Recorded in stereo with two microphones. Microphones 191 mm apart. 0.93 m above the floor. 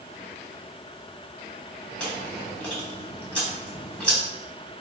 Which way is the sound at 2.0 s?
5° left (ahead or behind).